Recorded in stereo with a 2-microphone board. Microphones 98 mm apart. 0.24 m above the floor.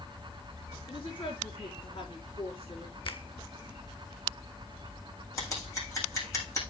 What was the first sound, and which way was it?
A woman speaking, 55° left (ahead or behind).